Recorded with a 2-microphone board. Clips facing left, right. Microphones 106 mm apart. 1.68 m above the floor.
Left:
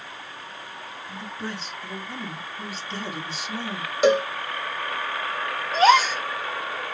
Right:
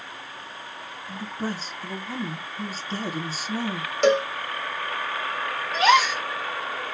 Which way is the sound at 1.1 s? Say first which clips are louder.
Right 4 dB; 40° right (ahead or behind).